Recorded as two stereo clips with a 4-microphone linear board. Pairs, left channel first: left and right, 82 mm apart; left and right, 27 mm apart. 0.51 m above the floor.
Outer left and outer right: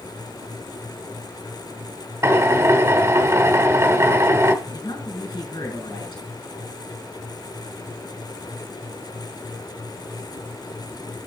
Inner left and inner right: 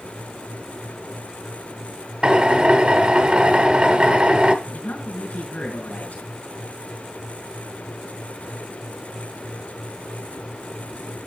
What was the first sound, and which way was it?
A drill, 35° right (ahead or behind).